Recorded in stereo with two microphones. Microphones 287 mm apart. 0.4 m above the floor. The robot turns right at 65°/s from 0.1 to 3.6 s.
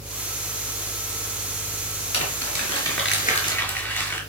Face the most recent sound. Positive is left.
turn(degrees=175)